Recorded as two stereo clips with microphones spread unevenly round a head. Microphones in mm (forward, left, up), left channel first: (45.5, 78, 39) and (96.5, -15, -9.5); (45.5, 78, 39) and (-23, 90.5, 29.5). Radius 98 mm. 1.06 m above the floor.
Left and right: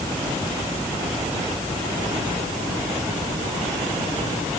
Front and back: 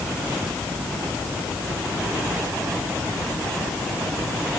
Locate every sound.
Only background noise.